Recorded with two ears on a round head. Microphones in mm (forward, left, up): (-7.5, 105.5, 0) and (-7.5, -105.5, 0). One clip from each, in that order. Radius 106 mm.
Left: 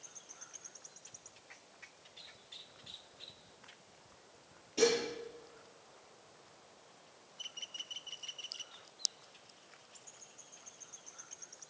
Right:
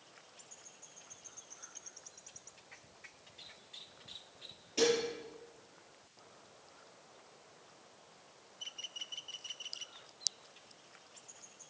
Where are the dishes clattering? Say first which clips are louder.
Even; 15° right (ahead or behind), 7 m.